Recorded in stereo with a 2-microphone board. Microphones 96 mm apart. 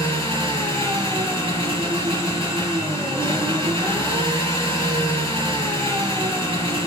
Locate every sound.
0.0 s an engine running: 60° right (ahead or behind), 4 m